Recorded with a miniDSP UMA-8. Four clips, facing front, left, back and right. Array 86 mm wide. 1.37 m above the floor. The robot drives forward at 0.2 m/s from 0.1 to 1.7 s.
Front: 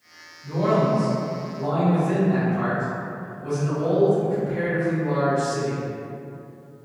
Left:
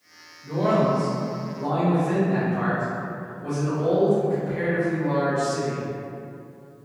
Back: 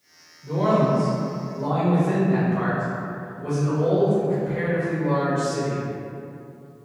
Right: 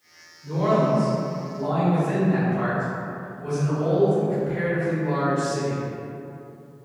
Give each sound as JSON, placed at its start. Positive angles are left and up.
{"t": 0.4, "sound": "a man speaking", "azimuth_deg": -175, "distance_m": 1.6}